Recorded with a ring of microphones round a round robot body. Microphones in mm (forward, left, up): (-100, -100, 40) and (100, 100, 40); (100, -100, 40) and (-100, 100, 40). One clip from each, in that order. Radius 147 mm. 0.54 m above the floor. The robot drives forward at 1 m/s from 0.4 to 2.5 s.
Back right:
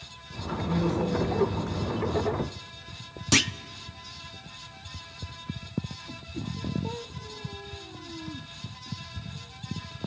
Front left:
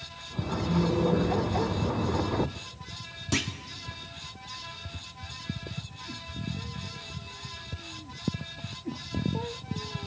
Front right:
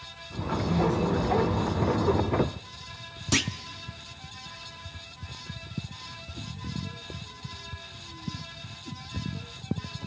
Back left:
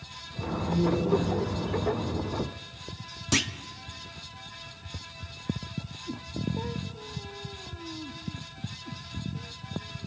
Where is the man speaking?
70° right, 7.5 m; by 2.0 s 80° right, 7.5 m.